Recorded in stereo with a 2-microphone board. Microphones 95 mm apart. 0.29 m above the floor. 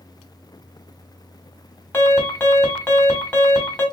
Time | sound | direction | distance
1.9 | an alarm | 20° left (ahead or behind) | 1.7 m